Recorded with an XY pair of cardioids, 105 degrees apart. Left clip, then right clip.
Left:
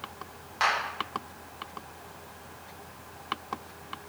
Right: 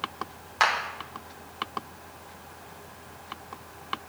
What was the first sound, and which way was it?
A clap, 45° right.